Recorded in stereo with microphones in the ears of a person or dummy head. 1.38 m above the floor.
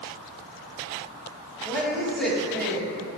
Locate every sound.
1.6 s a woman speaking: centre (ahead or behind), 2.5 m